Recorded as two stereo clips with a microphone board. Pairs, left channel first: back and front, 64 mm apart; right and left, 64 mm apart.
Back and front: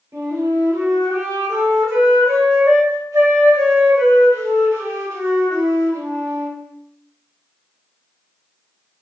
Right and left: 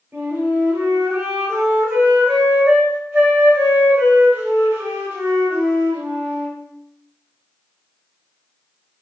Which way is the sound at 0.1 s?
35° left.